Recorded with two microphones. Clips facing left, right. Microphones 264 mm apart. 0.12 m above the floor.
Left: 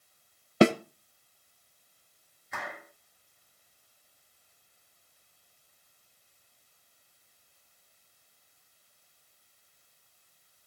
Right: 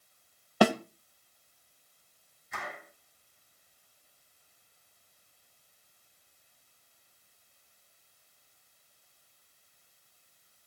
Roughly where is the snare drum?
Left.